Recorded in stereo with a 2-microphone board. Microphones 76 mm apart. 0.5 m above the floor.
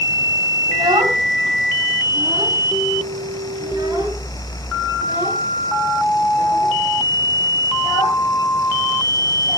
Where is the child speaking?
80° right, 2.5 m; by 9.6 s 50° right (ahead or behind), 11 m.